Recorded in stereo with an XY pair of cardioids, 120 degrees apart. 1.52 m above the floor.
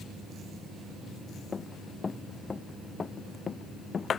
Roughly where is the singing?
I don't hear singing.